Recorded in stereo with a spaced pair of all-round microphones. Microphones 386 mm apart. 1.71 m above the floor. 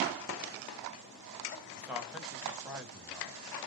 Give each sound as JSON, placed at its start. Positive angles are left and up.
{"t": 1.8, "sound": "a man speaking", "side_deg": 0, "distance_m": 1.6}